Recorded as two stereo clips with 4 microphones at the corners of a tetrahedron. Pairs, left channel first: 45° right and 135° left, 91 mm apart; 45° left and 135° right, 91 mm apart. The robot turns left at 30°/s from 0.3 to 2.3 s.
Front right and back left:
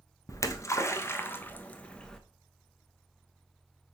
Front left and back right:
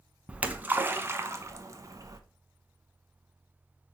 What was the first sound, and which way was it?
A splash, 65° right.